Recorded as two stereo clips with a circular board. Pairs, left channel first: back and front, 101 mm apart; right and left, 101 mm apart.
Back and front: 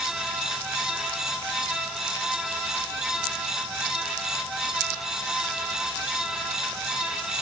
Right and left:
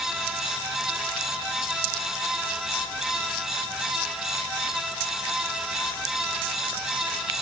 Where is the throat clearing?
No throat clearing in this recording.